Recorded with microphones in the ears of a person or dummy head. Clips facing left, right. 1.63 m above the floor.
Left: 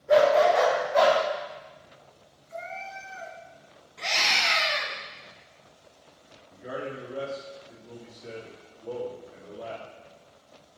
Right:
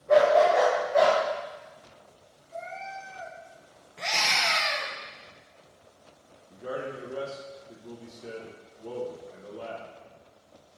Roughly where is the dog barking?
Centre.